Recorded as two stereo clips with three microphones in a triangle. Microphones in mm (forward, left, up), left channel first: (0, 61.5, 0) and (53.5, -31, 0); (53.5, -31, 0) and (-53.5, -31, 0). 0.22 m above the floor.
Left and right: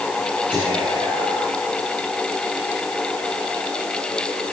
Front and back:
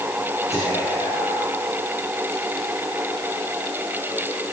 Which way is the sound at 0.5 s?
15° left.